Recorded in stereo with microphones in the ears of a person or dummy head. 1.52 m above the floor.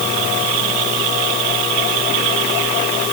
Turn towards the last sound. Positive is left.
No sound to turn to.